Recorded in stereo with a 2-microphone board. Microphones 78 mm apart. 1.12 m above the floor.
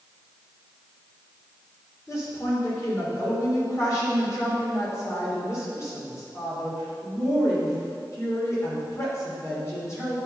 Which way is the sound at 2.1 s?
40° left (ahead or behind).